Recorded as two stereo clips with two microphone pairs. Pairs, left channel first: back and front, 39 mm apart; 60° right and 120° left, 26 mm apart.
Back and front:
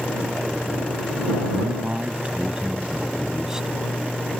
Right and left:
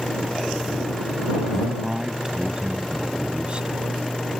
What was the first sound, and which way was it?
A man speaking, 45° left.